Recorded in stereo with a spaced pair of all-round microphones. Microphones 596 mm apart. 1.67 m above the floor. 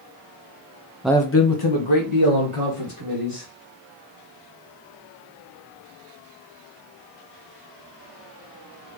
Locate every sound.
1.0 s a man speaking: 5° right (ahead or behind), 0.5 m; by 3.5 s 75° left (ahead or behind), 2.5 m